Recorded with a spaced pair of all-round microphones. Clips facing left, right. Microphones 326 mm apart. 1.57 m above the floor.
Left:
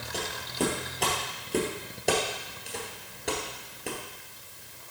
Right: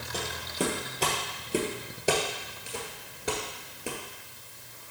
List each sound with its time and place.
0.1 s footsteps: 5° right (ahead or behind), 2 m